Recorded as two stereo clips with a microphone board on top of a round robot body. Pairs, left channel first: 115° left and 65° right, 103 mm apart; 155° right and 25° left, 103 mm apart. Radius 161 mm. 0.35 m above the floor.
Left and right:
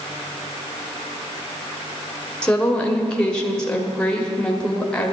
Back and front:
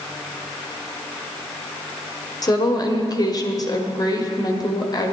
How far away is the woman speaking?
About 1.5 m.